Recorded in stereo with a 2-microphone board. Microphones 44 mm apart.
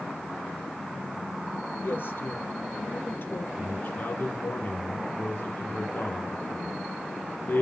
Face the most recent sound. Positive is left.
turn(degrees=45)  # may be behind; listen again after turning